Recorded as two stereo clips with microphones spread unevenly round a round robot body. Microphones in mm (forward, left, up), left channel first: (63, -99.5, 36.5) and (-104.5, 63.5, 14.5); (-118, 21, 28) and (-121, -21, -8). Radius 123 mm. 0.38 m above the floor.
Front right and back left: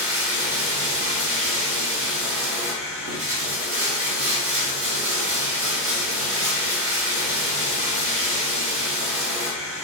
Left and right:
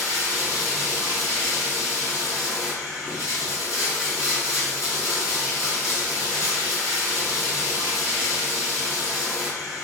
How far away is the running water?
About 2.0 m.